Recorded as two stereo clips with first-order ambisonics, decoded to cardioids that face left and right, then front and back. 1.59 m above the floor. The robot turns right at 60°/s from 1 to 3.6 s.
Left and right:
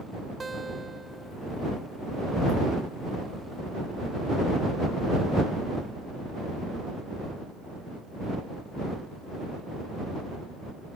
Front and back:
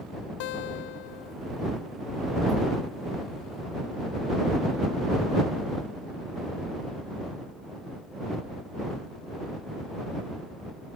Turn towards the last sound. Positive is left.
turn(degrees=145)